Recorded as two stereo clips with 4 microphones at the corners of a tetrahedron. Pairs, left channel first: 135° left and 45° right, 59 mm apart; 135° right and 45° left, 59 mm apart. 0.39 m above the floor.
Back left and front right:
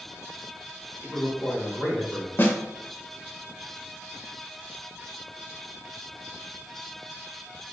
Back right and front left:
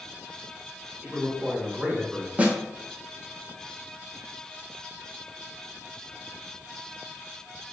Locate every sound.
1.0 s a man speaking: 115° left, 1.1 m
2.4 s a snare drum: 100° left, 0.6 m